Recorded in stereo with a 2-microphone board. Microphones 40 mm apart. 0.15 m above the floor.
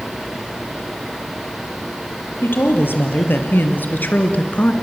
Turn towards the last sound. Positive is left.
turn(degrees=35)  # may be behind; listen again after turning